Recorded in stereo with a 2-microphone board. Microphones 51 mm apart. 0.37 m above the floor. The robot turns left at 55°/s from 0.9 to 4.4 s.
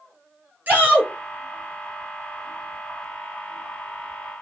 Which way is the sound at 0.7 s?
30° right (ahead or behind).